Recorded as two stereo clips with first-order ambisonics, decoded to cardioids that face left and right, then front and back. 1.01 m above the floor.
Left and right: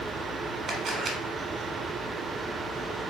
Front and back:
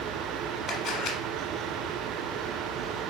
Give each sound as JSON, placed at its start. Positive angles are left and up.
{"t": 0.7, "sound": "a camera shutter", "azimuth_deg": -35, "distance_m": 1.1}